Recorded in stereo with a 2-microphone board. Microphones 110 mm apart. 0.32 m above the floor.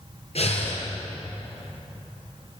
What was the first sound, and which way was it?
Breathing, 60° left (ahead or behind).